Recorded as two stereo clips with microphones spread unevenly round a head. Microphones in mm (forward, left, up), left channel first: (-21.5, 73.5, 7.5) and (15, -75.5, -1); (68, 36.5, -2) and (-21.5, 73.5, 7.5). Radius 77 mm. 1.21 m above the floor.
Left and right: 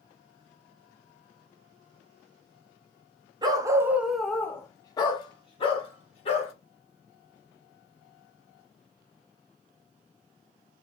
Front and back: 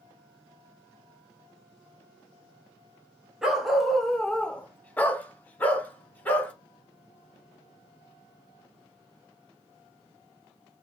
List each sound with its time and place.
3.4 s a dog barking: 130° right, 0.7 m; by 6.5 s 50° left, 1.6 m